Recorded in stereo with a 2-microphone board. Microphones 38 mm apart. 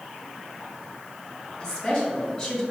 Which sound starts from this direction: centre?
A woman speaking, at 1.6 s.